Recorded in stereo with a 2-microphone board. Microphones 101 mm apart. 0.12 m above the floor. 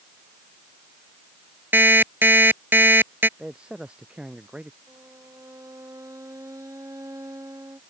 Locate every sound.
1.7 s an alarm clock: 20° right (ahead or behind)
3.4 s a man speaking: 10° right (ahead or behind)
4.9 s a violin: 30° right (ahead or behind)